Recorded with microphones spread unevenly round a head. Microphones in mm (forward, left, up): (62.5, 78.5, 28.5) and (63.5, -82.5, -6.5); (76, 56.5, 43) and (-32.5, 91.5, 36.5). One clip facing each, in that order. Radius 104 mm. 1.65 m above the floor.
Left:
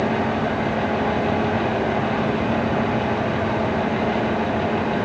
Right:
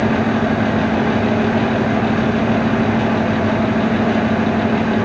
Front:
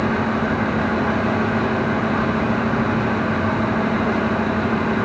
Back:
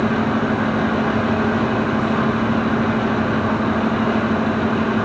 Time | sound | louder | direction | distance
0.0 | a fan | right 5 dB, back 2 dB | 115° right | 1.2 m